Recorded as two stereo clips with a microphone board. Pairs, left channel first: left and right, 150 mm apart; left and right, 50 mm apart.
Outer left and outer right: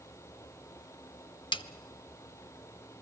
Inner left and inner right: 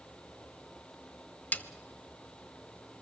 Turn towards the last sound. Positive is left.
turn(degrees=30)  # may be behind; listen again after turning